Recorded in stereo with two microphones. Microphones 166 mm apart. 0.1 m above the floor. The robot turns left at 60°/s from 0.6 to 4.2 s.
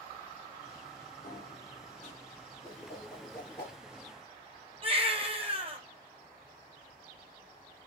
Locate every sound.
1.2 s a sliding door: 105° left, 1.6 m; by 2.1 s 50° left, 1.6 m
2.6 s a whoosh: 30° right (ahead or behind), 2.5 m; by 3.8 s 25° left (ahead or behind), 2.5 m
4.8 s a baby crying: 35° right (ahead or behind), 1.4 m